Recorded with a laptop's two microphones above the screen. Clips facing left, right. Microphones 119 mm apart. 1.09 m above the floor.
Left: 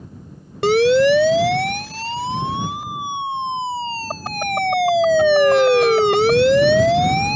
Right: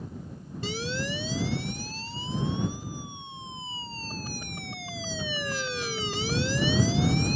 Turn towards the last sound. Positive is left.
turn(degrees=70)  # may be behind; listen again after turning